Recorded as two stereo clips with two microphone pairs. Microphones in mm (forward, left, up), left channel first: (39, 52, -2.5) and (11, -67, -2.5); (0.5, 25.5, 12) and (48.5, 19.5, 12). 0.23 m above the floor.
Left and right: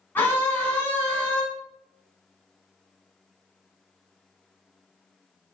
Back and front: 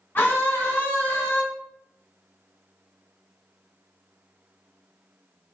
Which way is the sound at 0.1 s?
145° left.